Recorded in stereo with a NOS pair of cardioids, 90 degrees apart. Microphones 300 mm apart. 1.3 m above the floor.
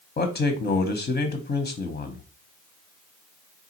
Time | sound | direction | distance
0.2 | a man speaking | 30° left | 0.8 m